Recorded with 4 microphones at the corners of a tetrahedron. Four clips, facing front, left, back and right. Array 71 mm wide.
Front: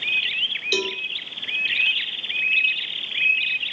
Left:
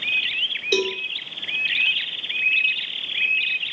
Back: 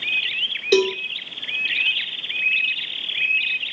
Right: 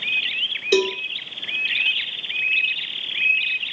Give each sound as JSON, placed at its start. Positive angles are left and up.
{"t": 0.7, "sound": "a cowbell", "azimuth_deg": -165, "distance_m": 2.0}